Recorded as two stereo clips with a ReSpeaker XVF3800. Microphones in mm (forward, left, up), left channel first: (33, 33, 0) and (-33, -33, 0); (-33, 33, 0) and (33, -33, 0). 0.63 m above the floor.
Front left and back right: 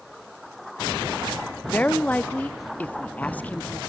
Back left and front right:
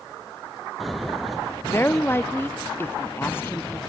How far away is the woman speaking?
About 0.8 m.